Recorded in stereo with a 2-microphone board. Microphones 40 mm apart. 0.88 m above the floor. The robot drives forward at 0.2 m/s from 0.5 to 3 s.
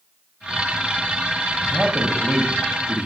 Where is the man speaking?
30° right (ahead or behind), 0.8 m.